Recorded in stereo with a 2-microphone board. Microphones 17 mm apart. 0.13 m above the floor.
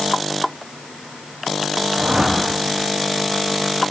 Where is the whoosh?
60° right (ahead or behind), 8.5 m.